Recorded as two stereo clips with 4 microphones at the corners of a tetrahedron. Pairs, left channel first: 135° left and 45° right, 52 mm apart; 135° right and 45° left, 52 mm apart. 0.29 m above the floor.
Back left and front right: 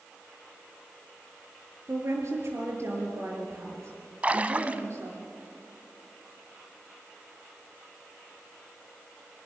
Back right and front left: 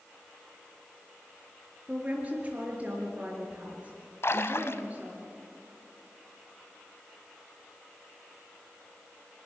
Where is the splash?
105° right, 0.8 m.